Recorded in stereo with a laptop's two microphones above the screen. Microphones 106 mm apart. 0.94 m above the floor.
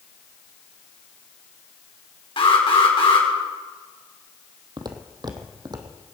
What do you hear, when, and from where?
2.4 s an alarm: 60° left (ahead or behind), 4 m
4.8 s footsteps: 40° right (ahead or behind), 1.5 m